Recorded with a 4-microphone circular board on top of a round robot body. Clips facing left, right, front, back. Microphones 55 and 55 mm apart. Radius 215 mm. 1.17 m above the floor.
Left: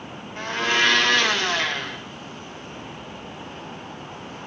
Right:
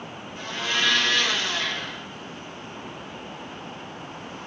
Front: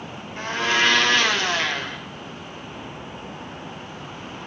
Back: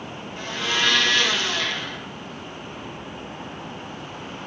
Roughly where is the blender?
Ahead left.